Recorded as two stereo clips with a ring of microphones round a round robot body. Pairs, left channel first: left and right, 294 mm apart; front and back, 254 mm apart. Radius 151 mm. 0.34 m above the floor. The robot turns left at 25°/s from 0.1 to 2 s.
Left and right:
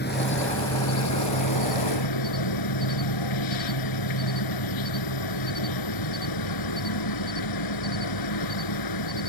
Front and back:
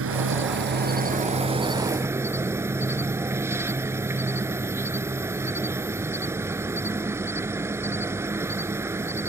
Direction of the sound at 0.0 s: 150° left.